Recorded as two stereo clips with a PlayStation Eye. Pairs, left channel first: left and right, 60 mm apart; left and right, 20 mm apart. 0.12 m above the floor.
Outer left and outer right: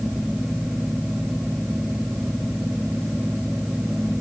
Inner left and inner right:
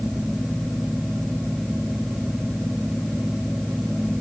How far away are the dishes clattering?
I don't hear dishes clattering.